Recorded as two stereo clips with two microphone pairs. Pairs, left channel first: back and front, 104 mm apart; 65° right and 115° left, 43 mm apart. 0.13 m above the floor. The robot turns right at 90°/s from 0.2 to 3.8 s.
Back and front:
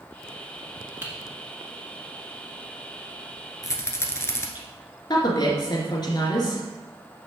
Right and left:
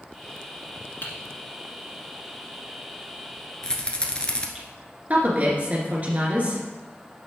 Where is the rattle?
140° right, 1.1 m; by 4.5 s 125° right, 1.1 m.